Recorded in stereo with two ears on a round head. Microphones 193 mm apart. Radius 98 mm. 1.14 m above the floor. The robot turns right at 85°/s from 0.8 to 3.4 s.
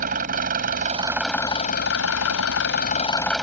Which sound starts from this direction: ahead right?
An engine running, at 0.0 s.